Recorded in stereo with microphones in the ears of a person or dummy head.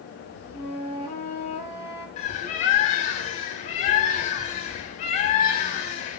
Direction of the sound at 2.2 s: 35° left (ahead or behind).